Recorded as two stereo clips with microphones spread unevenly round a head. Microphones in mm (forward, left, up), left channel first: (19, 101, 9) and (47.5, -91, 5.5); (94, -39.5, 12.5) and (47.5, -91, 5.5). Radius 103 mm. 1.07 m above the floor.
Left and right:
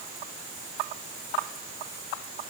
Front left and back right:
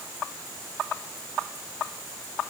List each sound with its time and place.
Only background noise.